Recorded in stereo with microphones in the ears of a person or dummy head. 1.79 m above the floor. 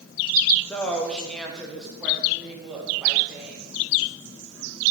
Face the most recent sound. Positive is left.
turn(degrees=-10)  # may be behind; listen again after turning